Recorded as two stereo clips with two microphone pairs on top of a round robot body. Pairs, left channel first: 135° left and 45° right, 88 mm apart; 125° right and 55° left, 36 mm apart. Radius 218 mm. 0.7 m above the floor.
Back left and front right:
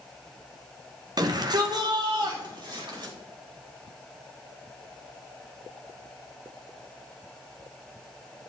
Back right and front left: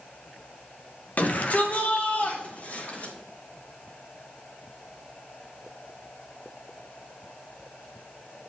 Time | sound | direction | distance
1.2 | a shout | 85° right | 1.9 m